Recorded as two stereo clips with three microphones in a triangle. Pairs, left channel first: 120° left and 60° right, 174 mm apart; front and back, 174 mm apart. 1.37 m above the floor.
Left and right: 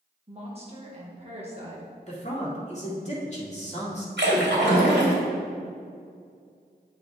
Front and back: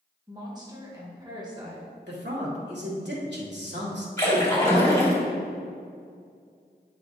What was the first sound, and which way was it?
A woman speaking, 115° right.